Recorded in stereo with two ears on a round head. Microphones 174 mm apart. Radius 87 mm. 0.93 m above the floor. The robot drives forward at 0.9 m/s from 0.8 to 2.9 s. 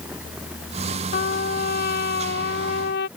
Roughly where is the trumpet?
Left.